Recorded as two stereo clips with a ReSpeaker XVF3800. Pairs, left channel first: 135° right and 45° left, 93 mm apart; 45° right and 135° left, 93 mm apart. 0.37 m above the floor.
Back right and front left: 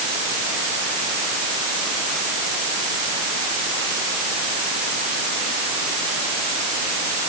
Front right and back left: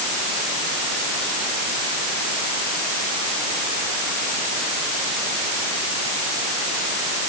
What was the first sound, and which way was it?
Only background noise.